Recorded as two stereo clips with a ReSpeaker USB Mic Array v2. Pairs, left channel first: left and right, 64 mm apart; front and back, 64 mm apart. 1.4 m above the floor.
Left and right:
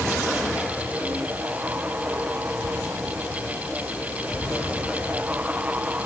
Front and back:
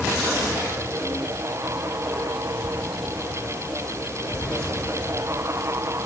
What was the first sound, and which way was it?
Only background noise.